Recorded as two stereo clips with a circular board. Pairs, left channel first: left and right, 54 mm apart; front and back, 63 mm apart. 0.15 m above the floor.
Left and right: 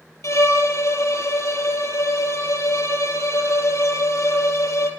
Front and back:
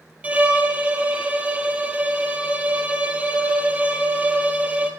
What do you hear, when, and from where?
0.2 s a violin: 110° left, 0.5 m